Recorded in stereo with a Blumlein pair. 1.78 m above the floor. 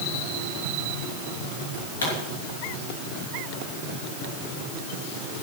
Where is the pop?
65° left, 6 m.